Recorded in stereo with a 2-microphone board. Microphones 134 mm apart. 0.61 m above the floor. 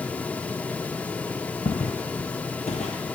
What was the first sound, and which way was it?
Footsteps, 60° left (ahead or behind).